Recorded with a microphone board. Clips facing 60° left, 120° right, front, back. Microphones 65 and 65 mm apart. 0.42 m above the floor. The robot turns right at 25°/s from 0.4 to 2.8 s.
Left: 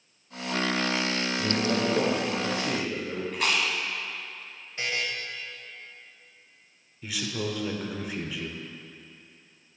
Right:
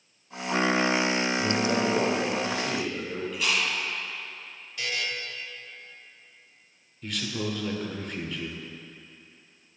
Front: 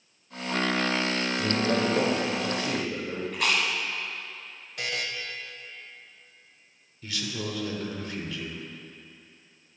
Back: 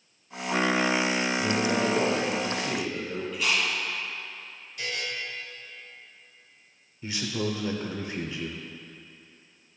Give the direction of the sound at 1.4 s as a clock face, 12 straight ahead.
1 o'clock.